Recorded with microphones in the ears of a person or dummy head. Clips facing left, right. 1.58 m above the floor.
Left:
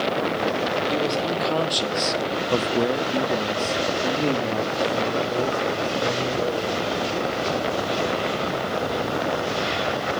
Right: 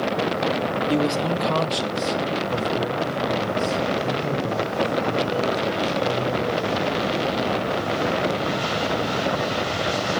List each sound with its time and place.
0.9 s a man speaking: 5° right (ahead or behind), 1.7 m; by 7.1 s 45° left (ahead or behind), 5 m